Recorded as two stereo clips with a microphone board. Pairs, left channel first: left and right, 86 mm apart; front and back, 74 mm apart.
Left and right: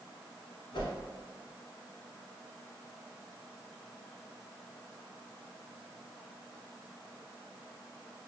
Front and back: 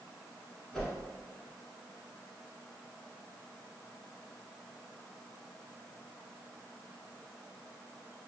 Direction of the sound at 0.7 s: 80° left.